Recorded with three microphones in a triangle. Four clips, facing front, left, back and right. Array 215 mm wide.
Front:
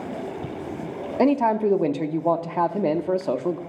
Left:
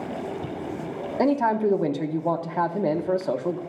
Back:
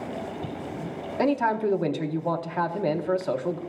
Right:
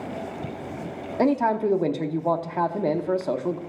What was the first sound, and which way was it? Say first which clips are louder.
A man speaking: even, front 4 dB; 5° right.